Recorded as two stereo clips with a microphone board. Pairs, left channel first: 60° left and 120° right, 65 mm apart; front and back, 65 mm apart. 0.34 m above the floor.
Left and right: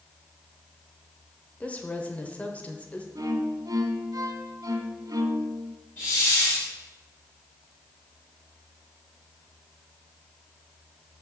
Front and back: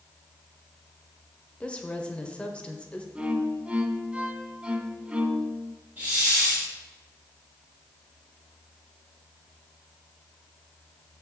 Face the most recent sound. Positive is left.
turn(degrees=115)